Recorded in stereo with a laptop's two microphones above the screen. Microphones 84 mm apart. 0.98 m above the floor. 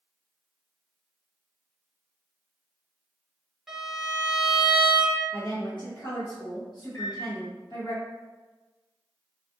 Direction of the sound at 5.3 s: 65° left (ahead or behind).